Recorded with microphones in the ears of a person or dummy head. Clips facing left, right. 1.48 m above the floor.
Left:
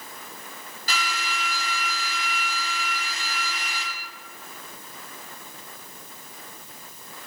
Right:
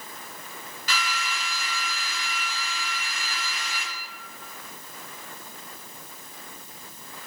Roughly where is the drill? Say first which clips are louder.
Left 1 dB; left.